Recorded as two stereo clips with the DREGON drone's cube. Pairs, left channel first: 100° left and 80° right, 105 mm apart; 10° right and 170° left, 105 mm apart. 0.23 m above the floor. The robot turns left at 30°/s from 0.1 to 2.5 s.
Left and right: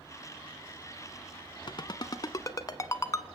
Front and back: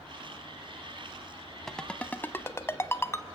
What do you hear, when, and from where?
1.7 s a ringtone: 75° left, 0.8 m; by 3.2 s 50° left, 0.8 m